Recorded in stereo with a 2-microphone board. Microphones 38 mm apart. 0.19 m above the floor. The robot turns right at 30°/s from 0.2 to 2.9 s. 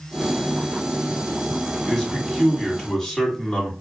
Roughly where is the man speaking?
Centre.